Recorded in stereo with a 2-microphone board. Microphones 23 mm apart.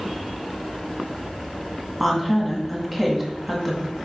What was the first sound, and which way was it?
A woman speaking, 5° right (ahead or behind).